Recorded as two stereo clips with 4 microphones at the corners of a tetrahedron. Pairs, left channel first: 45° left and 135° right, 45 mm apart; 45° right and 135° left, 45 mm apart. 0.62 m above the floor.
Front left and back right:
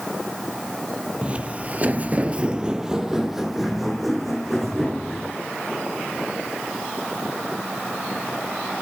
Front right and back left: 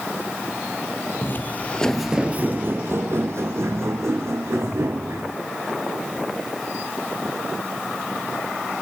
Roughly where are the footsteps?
Right.